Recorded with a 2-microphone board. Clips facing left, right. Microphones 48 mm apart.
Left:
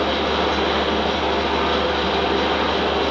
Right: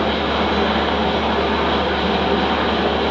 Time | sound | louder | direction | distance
0.0 | an engine running | right 1 dB | 15° right (ahead or behind) | 1.0 m